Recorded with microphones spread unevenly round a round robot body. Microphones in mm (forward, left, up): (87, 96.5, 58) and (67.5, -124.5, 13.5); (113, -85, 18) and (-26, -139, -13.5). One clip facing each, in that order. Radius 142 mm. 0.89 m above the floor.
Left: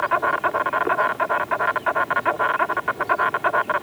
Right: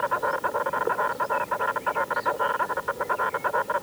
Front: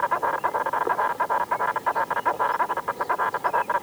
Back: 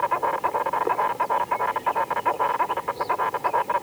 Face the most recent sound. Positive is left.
turn(degrees=115)